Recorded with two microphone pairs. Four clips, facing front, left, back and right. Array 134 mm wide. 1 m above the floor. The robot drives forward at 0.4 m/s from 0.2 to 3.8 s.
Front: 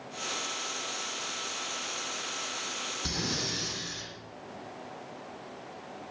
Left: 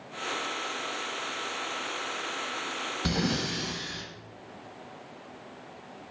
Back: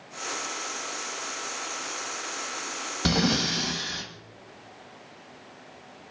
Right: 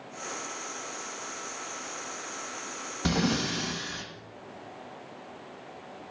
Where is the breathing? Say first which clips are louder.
Right 3 dB, back 12 dB; 175° right, 1.5 m.